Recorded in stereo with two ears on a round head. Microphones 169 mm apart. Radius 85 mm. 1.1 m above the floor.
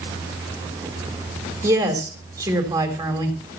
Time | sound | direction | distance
1.6 | a woman speaking | 20° right (ahead or behind) | 3.5 m